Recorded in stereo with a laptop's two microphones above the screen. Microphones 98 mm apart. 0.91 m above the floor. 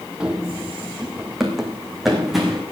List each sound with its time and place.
0.2 s running footsteps: 10° right (ahead or behind), 1.3 m; by 2.6 s centre (ahead or behind), 2.5 m